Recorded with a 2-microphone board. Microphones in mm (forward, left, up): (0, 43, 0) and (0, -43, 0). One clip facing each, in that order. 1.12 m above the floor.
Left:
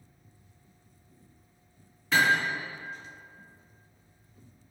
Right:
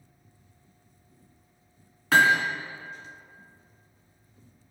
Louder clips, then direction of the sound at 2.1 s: Right 4 dB; 75° right (ahead or behind).